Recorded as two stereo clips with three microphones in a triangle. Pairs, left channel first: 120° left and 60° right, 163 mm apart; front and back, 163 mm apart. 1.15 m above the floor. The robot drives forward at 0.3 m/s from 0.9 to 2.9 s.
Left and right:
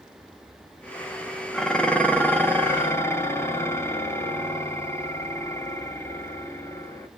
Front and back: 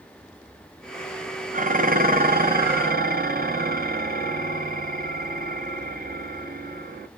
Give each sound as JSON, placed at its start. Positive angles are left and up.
{"t": 1.5, "sound": "dishes clattering", "azimuth_deg": -155, "distance_m": 0.5}